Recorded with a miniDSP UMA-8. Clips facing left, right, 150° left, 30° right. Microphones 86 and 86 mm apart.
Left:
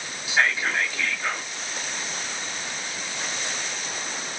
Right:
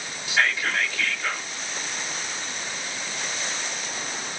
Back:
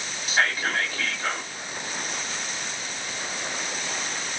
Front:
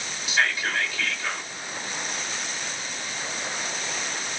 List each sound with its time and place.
0.3 s whispering: 150° left, 1.5 m